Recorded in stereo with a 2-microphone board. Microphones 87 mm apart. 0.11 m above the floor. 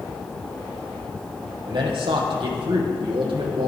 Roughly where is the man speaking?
Right.